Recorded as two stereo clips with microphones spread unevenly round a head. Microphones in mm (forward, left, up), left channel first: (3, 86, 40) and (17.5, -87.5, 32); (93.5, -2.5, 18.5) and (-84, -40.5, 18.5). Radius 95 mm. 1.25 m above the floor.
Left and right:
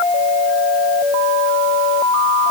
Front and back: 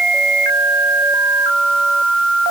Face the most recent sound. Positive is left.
No sound to turn to.